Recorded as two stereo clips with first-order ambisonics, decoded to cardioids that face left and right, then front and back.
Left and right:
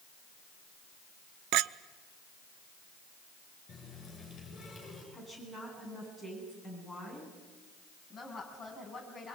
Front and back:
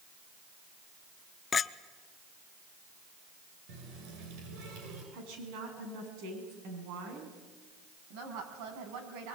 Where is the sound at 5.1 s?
Straight behind, 8.5 m.